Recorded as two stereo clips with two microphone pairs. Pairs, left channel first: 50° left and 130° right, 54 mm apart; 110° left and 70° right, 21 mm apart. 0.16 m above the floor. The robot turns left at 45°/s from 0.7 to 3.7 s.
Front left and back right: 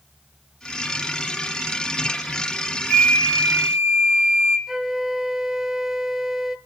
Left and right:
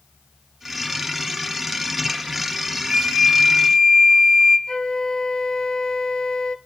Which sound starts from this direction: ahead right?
A flute, at 2.9 s.